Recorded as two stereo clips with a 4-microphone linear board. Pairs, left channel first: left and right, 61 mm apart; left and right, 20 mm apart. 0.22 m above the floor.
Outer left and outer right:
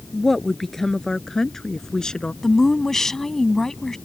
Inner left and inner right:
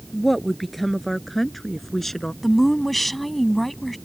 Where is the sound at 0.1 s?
5° left (ahead or behind); by 2.3 s 10° left (ahead or behind).